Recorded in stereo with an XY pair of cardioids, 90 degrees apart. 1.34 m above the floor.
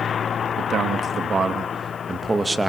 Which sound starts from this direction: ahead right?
A man speaking, at 0.6 s.